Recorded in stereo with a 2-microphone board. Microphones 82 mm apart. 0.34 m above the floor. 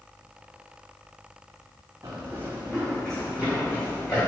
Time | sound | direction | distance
2.0 | running footsteps | 40° right (ahead or behind) | 1.3 m